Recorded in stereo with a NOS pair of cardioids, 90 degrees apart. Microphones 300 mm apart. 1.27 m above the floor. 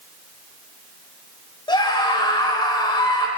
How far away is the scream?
About 7 m.